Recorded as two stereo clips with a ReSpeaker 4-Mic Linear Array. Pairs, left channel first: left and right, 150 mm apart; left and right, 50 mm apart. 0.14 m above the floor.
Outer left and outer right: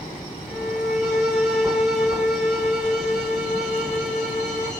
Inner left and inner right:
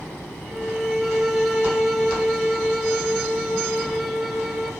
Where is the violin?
5° right (ahead or behind), 2 m.